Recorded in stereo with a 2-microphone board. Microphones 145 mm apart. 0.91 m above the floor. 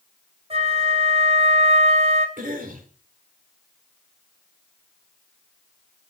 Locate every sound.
0.5 s a flute: 45° right (ahead or behind), 3 m
2.4 s a cough: 70° right (ahead or behind), 2.5 m